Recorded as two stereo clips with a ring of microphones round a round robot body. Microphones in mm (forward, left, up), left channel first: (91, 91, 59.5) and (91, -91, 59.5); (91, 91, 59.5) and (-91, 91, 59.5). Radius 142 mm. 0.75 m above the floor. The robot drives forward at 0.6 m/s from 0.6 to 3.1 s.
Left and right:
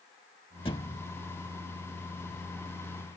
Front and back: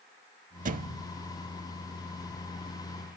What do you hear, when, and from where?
0.7 s a thud: 155° left; by 1.1 s 165° left